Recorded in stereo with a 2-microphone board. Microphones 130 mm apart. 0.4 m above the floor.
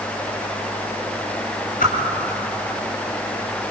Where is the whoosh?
85° left, 3.5 m.